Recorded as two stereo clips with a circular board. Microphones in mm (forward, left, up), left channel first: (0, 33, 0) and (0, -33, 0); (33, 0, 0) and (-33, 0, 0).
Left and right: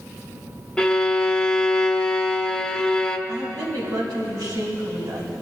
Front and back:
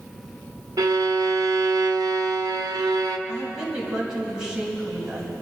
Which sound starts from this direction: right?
A woman speaking, at 3.3 s.